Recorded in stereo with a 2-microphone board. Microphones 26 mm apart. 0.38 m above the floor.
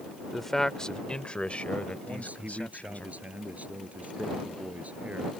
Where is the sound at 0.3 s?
5° left (ahead or behind); by 3.1 s 70° left (ahead or behind).